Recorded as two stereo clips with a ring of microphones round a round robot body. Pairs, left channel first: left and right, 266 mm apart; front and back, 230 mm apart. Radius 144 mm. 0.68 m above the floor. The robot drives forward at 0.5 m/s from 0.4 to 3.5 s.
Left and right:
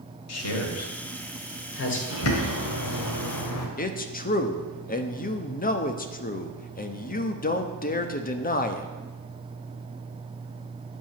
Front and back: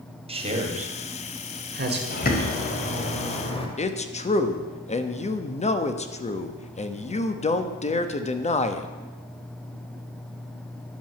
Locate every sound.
0.3 s a man speaking: 115° left, 1.6 m; by 2.0 s 135° left, 2 m
2.1 s a bird: 50° left, 2 m; by 3.7 s 65° left, 1.9 m
3.8 s a man speaking: 45° left, 1.0 m